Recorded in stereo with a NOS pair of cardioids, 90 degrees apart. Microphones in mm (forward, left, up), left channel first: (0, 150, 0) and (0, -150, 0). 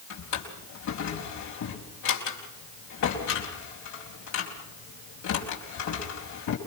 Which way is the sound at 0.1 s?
70° left.